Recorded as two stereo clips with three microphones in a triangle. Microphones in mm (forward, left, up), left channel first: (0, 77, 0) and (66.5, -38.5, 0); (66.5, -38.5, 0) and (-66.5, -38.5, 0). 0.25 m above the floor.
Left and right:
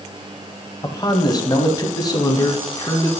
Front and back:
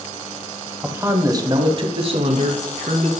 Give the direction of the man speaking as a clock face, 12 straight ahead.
8 o'clock.